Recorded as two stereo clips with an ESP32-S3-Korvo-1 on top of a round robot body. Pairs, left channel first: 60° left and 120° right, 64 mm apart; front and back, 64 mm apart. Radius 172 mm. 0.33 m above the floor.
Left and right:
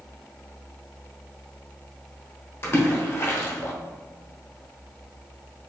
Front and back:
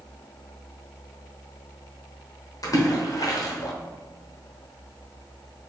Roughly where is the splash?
Ahead.